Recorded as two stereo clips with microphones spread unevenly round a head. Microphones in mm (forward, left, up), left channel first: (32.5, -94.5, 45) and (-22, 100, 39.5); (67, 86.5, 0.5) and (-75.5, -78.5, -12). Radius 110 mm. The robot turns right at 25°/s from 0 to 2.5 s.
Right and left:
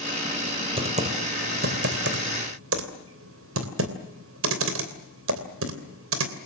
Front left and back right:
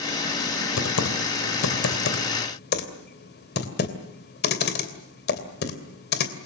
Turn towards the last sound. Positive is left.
turn(degrees=85)